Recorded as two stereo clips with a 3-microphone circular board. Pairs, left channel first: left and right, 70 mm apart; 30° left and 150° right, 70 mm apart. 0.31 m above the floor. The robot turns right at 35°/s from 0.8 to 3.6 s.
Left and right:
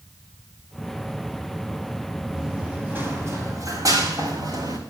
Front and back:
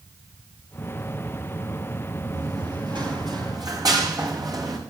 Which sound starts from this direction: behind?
Running footsteps, at 2.3 s.